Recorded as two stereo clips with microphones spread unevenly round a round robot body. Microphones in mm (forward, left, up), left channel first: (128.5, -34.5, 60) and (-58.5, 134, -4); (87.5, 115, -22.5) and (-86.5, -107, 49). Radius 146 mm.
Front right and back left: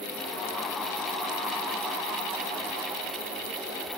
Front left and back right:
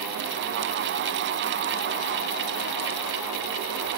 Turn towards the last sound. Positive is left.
No sound to turn to.